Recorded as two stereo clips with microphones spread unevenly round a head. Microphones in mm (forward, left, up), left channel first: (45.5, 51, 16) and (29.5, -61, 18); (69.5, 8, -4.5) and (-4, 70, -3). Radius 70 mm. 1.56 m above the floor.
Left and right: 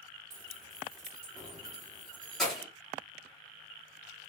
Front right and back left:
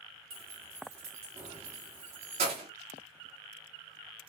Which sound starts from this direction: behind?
Keys jangling, at 0.3 s.